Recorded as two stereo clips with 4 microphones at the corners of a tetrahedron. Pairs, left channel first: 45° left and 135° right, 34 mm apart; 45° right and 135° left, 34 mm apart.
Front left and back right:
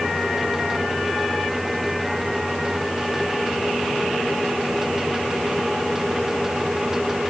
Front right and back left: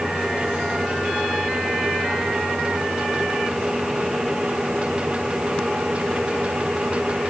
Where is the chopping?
No chopping in this recording.